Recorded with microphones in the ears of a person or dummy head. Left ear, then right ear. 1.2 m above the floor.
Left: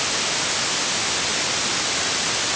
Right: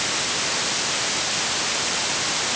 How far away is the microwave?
No microwave in this recording.